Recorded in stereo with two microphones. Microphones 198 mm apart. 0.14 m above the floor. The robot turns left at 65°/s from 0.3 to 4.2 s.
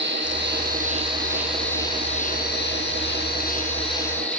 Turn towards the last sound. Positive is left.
turn(degrees=10)